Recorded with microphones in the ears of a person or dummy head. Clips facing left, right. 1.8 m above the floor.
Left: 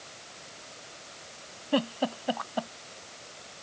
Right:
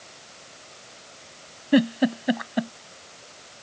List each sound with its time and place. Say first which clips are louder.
1.7 s a giggle: right 8 dB; 25° right (ahead or behind)